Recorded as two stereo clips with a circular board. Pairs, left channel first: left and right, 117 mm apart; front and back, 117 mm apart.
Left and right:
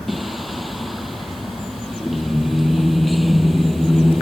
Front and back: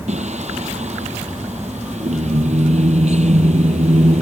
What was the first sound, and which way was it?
Singing, straight behind.